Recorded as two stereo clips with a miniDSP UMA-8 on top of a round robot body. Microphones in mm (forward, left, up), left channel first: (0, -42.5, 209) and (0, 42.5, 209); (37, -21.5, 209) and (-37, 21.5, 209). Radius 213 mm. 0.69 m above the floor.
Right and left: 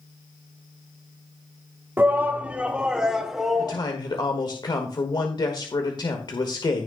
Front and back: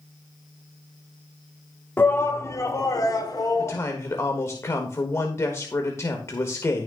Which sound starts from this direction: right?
A man speaking, at 3.6 s.